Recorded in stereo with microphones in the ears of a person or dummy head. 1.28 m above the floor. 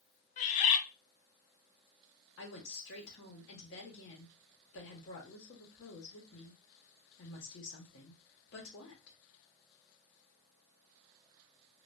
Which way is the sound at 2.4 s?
60° left (ahead or behind).